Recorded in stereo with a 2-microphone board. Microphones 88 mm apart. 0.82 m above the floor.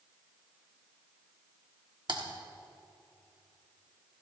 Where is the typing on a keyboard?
60° right (ahead or behind), 1.5 m.